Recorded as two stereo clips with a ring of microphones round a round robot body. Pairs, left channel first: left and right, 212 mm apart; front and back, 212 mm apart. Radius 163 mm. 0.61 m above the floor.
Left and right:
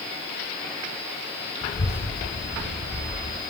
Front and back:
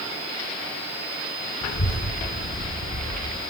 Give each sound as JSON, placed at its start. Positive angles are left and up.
{"t": 1.6, "sound": "a child speaking", "azimuth_deg": 35, "distance_m": 4.0}